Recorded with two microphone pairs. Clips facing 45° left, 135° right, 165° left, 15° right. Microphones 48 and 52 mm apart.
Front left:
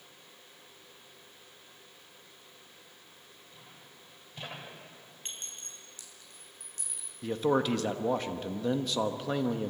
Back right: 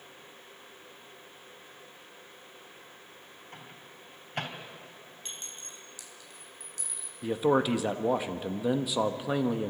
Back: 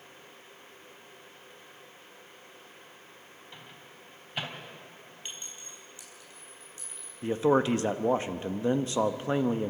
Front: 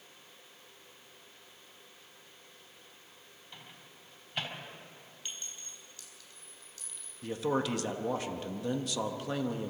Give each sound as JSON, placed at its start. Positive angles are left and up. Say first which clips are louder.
{"t": 3.5, "sound": "a microwave", "louder": "back right 6 dB, back 2 dB", "azimuth_deg": -115, "distance_m": 3.5}
{"t": 5.2, "sound": "a clink", "louder": "front left 1 dB, back 1 dB", "azimuth_deg": 95, "distance_m": 4.5}
{"t": 7.2, "sound": "a man speaking", "louder": "back right 2 dB, back 7 dB", "azimuth_deg": 155, "distance_m": 0.9}